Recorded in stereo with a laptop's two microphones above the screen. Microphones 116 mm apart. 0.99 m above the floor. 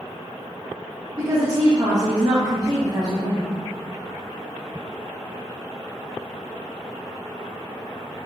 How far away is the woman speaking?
About 0.8 m.